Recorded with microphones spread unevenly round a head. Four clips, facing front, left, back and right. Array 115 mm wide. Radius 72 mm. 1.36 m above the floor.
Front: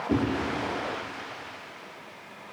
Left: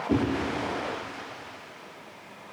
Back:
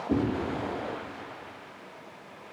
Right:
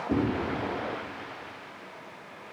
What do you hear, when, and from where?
0.1 s a whoosh: 135° left, 2.5 m